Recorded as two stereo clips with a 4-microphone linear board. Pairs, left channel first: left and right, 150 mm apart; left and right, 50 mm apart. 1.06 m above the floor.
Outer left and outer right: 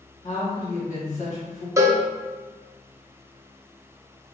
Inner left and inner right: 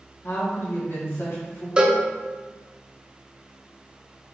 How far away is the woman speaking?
About 1.5 m.